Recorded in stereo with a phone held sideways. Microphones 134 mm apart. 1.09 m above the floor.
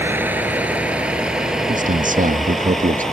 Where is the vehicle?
15° right (ahead or behind); by 3.1 s 5° left (ahead or behind).